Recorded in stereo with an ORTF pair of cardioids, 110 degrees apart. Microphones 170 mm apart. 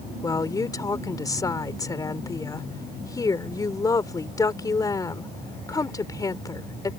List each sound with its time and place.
0.2 s a woman speaking: 20° left